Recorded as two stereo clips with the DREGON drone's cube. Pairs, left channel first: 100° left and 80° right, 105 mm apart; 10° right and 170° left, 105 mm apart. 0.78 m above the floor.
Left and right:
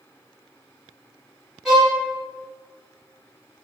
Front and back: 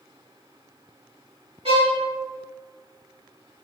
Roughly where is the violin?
Behind.